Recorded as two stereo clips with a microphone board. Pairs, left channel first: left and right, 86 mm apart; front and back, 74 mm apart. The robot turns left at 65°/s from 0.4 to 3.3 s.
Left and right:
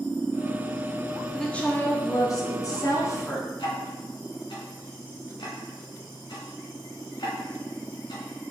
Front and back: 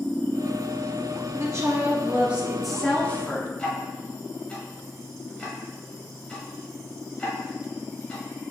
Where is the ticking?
75° left, 1.2 m.